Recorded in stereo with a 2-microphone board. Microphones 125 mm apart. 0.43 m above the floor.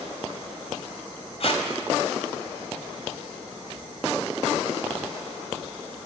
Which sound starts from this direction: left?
Tape being pulled, at 1.4 s.